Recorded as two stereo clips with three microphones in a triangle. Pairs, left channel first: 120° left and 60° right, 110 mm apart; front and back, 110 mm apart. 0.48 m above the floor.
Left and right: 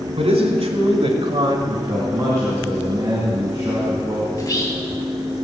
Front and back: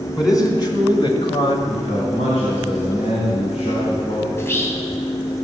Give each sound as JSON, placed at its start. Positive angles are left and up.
{"t": 0.2, "sound": "a man speaking", "azimuth_deg": -55, "distance_m": 3.0}
{"t": 1.7, "sound": "a man speaking", "azimuth_deg": 0, "distance_m": 3.5}
{"t": 4.3, "sound": "whispering", "azimuth_deg": 65, "distance_m": 3.5}